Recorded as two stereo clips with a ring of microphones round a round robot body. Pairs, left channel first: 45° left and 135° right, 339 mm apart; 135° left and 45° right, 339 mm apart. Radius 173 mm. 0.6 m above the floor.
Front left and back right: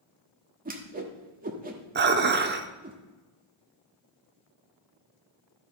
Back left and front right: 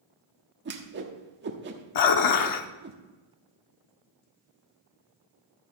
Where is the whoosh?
85° right, 1.4 m.